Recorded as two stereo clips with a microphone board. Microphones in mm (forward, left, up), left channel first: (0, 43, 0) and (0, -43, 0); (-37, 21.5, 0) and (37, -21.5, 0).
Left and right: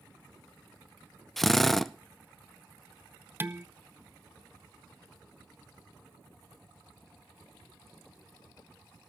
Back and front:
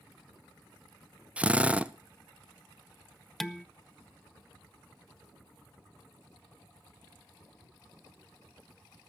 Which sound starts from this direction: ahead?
A drill, at 1.4 s.